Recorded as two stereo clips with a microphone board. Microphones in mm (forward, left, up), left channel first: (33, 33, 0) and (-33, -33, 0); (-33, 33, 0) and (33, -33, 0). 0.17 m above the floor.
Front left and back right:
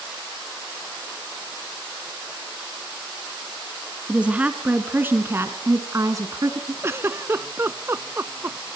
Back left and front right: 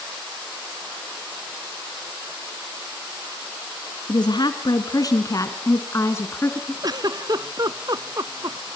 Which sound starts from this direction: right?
A giggle, at 6.8 s.